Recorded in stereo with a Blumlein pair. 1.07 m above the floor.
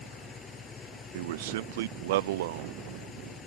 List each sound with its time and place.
0.0 s an engine running: 20° left
1.1 s a man speaking: 55° right